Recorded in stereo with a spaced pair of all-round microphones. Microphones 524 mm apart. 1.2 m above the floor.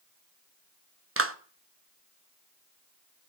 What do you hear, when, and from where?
1.2 s a clap: 25° right (ahead or behind), 0.9 m